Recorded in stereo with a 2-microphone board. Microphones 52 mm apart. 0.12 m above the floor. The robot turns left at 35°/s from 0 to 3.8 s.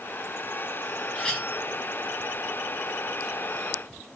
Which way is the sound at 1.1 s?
15° left (ahead or behind).